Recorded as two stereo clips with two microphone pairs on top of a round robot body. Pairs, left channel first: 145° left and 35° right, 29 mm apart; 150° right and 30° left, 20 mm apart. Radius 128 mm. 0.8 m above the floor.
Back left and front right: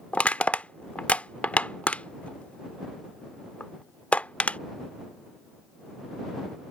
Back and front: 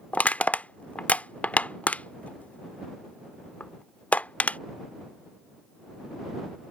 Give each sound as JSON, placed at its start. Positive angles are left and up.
{"t": 0.1, "sound": "crushing", "azimuth_deg": -160}